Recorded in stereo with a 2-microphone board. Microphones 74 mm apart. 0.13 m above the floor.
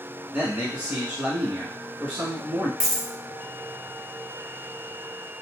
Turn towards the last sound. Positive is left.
turn(degrees=-10)  # may be behind; listen again after turning